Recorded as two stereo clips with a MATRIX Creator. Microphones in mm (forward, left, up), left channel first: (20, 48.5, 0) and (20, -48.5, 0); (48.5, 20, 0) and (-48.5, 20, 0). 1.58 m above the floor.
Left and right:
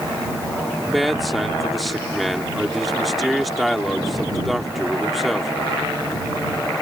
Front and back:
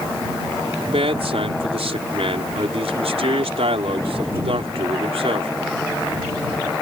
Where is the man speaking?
Straight behind.